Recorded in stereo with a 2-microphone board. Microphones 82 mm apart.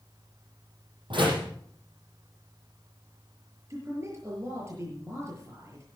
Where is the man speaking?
35° right (ahead or behind), 7 m.